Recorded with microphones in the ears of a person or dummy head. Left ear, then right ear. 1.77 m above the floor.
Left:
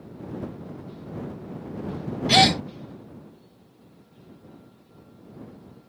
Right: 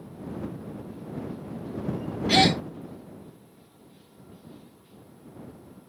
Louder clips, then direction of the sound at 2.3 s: Left 3 dB; 10° left (ahead or behind).